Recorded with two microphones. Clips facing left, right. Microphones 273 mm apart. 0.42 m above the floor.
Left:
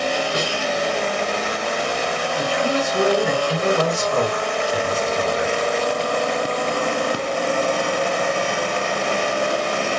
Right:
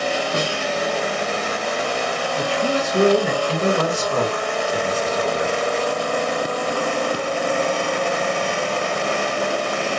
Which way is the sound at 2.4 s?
40° right (ahead or behind).